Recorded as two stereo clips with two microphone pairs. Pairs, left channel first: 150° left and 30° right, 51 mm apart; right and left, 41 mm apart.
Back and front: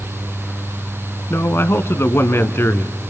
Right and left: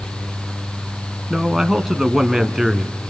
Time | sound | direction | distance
1.3 | a man speaking | 175° left | 2 m